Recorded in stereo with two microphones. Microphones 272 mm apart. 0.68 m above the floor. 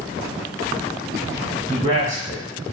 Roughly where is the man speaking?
Centre.